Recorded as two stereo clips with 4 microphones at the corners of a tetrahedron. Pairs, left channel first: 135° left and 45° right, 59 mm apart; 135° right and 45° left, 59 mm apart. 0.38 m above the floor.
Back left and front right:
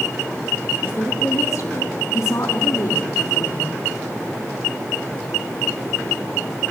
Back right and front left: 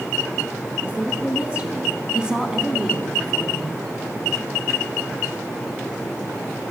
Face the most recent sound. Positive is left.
turn(degrees=145)